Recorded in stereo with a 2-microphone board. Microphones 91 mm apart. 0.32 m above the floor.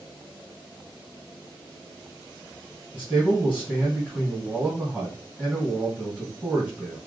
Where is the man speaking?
Centre (ahead or behind), 2 m.